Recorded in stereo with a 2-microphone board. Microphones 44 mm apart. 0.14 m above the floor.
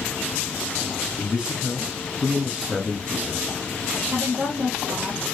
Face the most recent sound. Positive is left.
turn(degrees=-55)  # may be behind; listen again after turning